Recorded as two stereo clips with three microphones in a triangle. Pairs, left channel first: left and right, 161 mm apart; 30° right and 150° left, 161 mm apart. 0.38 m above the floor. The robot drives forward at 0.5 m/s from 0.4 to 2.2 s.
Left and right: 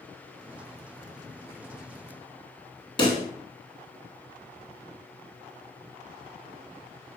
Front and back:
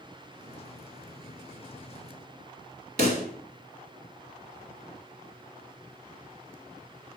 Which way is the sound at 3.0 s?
145° left.